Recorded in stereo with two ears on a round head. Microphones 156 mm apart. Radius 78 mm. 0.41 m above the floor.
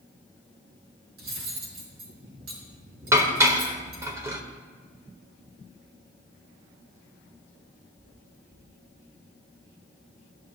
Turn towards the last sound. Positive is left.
turn(degrees=-15)  # may be behind; listen again after turning